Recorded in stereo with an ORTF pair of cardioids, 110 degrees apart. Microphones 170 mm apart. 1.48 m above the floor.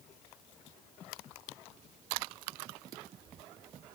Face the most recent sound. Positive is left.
No sound to turn to.